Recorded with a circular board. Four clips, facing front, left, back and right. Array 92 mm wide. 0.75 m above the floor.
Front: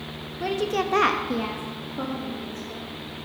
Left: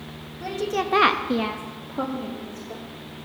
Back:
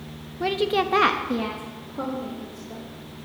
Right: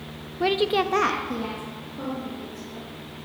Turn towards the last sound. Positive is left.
turn(degrees=85)